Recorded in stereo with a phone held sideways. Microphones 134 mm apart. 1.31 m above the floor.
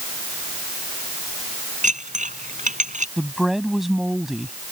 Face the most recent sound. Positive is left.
turn(degrees=0)  # may be behind; listen again after turning